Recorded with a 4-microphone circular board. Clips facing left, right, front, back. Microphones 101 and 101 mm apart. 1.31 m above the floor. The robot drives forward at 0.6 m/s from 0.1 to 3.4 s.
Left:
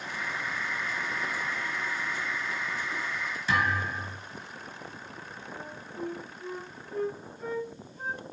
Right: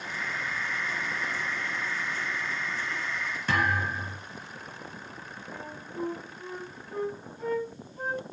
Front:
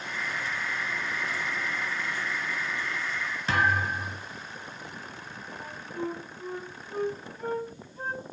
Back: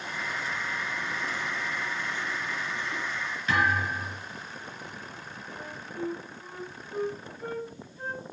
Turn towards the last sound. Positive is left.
turn(degrees=-45)